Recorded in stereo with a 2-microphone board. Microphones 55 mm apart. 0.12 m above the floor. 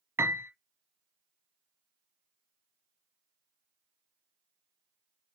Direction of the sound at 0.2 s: 50° right (ahead or behind).